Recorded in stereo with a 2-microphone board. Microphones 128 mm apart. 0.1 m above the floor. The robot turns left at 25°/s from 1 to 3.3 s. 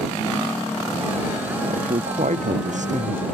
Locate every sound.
1.6 s a man speaking: 75° right; by 3.2 s 115° right